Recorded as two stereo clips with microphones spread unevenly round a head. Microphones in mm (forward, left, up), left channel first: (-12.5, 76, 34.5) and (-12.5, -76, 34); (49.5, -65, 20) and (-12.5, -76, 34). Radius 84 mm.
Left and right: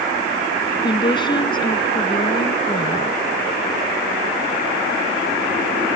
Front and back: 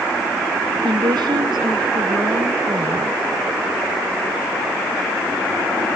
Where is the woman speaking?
150° left.